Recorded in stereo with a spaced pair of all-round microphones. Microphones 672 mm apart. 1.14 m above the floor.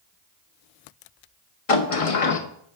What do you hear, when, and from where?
1.7 s a sliding door: 55° left (ahead or behind), 0.8 m